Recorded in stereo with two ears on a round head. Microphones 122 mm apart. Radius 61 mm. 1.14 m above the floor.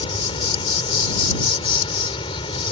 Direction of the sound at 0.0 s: 35° left (ahead or behind).